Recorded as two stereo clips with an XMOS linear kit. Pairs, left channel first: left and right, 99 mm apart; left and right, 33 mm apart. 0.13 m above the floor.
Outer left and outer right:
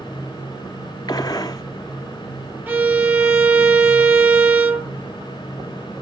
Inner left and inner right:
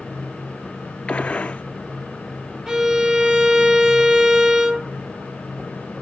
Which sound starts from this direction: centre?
A violin, at 2.7 s.